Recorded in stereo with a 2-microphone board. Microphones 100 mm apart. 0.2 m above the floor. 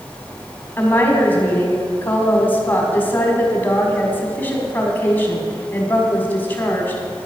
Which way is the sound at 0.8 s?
20° left (ahead or behind).